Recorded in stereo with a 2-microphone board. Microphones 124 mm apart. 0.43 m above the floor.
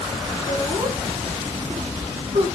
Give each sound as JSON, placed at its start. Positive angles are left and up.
{"t": 0.5, "sound": "laughter", "side_deg": -50, "distance_m": 4.5}